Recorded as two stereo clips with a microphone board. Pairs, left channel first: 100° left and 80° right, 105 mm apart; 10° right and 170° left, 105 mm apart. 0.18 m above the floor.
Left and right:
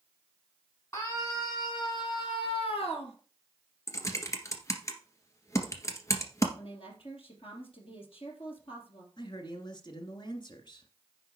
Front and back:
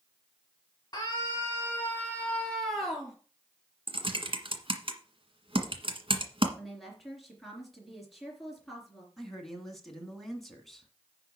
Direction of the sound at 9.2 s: 75° left.